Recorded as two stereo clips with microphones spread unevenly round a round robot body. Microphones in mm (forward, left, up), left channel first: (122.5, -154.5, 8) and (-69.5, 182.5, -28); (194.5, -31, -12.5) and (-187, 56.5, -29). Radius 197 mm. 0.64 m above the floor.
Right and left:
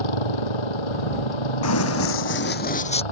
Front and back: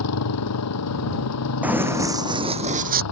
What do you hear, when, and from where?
0.0 s a motorcycle: 65° right
1.6 s running footsteps: 105° right; by 3.0 s 130° right